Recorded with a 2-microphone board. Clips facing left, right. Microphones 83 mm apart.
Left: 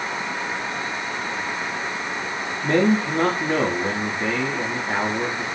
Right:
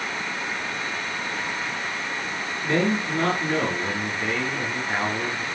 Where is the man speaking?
30° left (ahead or behind), 5 m.